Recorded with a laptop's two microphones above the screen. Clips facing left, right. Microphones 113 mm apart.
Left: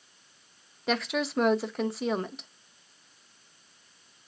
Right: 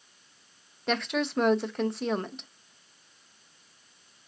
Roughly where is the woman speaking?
Centre.